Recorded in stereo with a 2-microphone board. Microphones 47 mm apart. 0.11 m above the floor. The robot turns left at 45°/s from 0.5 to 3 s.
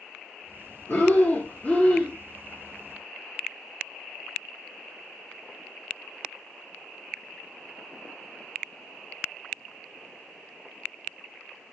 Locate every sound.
0.9 s breathing: 85° left, 1.1 m; by 2.1 s 30° left, 1.1 m